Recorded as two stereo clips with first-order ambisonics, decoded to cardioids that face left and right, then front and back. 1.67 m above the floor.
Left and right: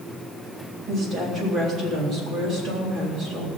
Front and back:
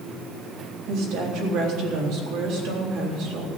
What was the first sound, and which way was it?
A woman speaking, 150° right.